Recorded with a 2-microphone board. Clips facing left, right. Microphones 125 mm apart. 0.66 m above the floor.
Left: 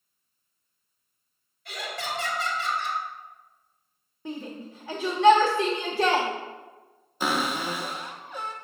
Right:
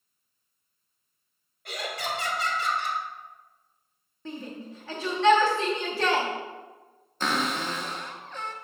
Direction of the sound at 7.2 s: 10° left (ahead or behind).